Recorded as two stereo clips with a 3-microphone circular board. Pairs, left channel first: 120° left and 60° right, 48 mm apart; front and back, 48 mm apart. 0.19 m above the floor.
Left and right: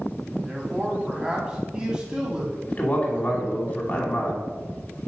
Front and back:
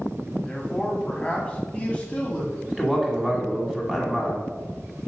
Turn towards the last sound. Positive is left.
turn(degrees=105)